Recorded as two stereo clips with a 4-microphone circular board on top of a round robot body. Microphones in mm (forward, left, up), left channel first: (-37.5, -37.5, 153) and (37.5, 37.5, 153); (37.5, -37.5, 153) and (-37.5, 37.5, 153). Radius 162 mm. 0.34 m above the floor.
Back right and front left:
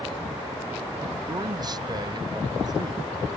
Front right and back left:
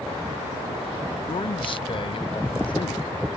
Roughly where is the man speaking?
Ahead.